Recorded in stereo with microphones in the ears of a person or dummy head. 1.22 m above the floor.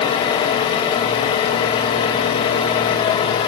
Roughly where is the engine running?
Centre.